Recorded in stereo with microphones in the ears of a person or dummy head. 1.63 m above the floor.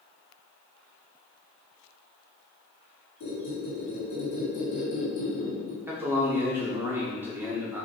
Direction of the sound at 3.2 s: 60° left (ahead or behind).